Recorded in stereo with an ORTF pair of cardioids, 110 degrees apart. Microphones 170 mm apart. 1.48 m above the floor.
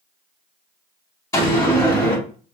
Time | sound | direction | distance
1.3 | a door slam | 20° left | 3 m